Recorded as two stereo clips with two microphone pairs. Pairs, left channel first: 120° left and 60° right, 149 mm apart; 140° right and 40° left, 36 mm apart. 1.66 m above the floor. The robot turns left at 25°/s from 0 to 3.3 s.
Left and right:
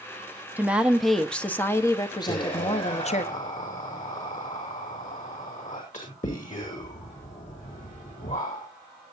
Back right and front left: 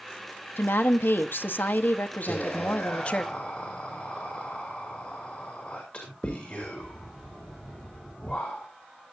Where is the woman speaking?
135° right, 1.0 m; by 3.2 s 155° left, 1.0 m.